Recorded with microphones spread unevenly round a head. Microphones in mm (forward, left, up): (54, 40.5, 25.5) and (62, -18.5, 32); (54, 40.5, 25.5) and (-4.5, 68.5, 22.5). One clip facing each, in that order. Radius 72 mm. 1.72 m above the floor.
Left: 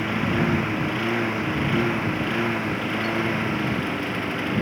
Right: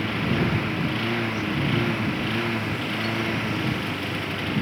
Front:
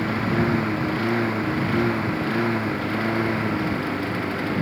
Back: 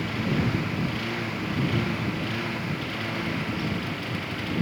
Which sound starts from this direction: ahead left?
A lawn mower, at 0.0 s.